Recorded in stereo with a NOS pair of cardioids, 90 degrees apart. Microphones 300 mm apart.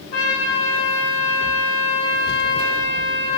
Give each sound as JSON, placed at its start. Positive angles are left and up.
{"t": 0.1, "sound": "a trumpet", "azimuth_deg": 55, "distance_m": 9.5}